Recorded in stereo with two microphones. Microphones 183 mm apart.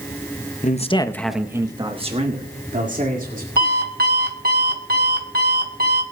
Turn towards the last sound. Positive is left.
turn(degrees=-55)  # may be behind; listen again after turning